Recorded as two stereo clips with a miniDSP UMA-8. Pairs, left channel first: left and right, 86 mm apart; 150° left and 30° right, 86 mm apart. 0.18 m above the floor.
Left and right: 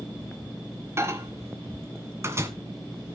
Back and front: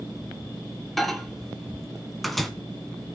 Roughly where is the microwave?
Behind right.